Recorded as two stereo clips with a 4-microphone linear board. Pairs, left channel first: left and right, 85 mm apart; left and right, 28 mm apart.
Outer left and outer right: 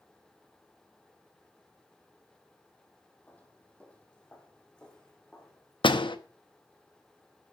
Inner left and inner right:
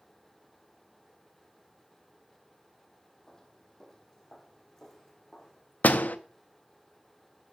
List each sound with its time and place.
3.3 s footsteps: 20° left (ahead or behind), 2.5 m; by 5.7 s 10° left (ahead or behind), 4 m
5.8 s a door slam: 75° left (ahead or behind), 0.8 m